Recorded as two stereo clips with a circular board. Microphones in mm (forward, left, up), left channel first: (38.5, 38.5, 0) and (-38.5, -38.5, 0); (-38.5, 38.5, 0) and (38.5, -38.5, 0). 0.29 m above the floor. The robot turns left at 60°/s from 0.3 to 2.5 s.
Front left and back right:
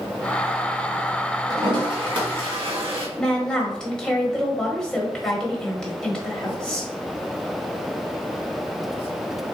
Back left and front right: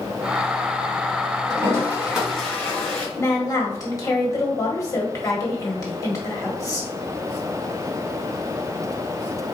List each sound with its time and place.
1.5 s a toilet flushing: 85° right, 1.7 m; by 3.1 s 150° right, 1.7 m
3.2 s a woman speaking: 120° left, 1.3 m